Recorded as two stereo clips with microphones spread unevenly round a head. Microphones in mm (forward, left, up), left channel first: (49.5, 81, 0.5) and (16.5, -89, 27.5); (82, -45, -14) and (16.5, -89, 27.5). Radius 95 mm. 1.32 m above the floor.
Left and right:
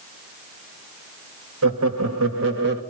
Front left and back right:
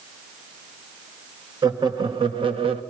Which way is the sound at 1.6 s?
105° right.